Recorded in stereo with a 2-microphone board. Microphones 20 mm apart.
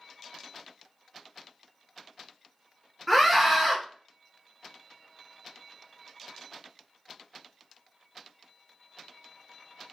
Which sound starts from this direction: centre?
A scream, at 3.1 s.